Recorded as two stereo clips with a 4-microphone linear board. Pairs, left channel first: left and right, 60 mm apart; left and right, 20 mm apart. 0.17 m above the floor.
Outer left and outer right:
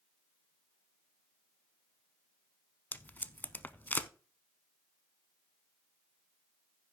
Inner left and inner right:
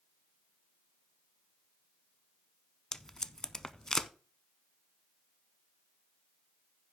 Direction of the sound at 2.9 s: 30° left (ahead or behind).